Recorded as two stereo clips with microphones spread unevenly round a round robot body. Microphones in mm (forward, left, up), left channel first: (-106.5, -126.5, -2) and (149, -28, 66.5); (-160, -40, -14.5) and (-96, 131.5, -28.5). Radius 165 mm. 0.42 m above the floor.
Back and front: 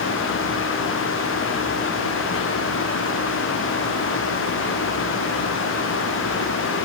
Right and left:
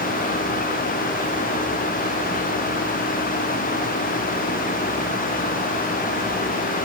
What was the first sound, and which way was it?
Only background noise.